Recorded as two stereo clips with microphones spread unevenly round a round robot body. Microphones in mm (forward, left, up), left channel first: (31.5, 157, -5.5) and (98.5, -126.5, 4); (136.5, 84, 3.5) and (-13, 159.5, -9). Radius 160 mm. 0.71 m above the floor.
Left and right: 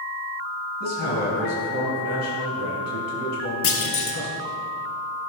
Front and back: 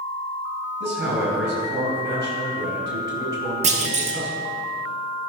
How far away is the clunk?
About 1.1 m.